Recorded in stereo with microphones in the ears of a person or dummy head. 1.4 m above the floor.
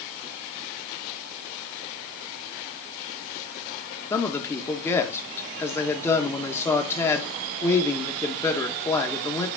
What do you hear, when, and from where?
4.1 s a man speaking: 15° left (ahead or behind), 1.8 m